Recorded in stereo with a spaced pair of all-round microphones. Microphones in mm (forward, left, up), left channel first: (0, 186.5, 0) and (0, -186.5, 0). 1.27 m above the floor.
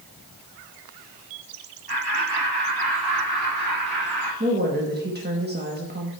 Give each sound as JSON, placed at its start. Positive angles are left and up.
{"t": 1.9, "sound": "laughter", "side_deg": -75, "distance_m": 2.0}
{"t": 4.4, "sound": "a woman speaking", "side_deg": -25, "distance_m": 1.2}